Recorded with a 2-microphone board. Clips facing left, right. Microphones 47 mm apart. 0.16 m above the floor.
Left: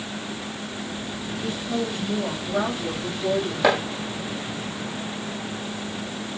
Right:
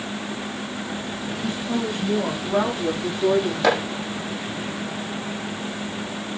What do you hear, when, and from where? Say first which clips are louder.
1.4 s a woman speaking: right 1 dB; 30° right (ahead or behind), 7 m; by 3.5 s 35° right (ahead or behind), 8 m
3.6 s chopping: left 1 dB; 5° left (ahead or behind), 6 m